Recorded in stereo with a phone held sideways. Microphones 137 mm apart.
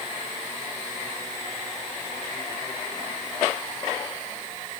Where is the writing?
I don't hear writing.